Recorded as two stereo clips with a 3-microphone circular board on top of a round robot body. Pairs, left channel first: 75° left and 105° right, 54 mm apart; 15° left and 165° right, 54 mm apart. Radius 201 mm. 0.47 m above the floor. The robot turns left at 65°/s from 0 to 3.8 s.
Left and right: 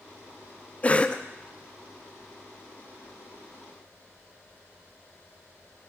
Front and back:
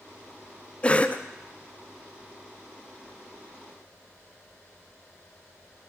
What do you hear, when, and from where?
0.8 s a cough: 55° left, 0.7 m; by 1.2 s 25° left, 0.7 m